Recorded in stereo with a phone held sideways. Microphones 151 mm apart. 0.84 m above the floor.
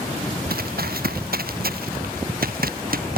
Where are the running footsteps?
80° right; by 3.2 s 75° right (ahead or behind).